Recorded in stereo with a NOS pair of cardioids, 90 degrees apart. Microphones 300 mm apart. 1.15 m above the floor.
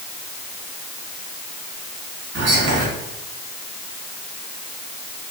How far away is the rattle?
I don't hear a rattle.